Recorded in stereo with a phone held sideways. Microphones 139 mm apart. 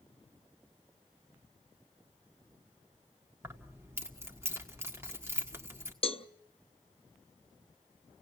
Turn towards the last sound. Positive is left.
turn(degrees=40)  # may be behind; listen again after turning